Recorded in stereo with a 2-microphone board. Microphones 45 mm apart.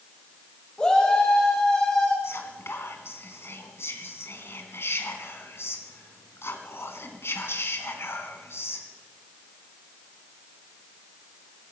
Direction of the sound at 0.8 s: 20° left (ahead or behind).